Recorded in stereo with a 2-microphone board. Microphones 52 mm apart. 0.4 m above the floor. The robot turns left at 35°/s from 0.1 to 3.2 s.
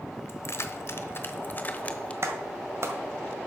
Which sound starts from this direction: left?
Keys jangling, at 0.3 s.